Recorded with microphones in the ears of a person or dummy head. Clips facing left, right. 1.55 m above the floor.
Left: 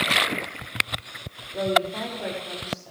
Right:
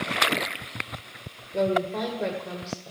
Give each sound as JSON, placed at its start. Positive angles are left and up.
{"t": 1.5, "sound": "a woman speaking", "side_deg": -25, "distance_m": 1.8}